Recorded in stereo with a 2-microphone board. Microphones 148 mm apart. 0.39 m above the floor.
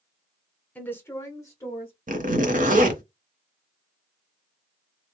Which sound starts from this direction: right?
A zipper, at 2.1 s.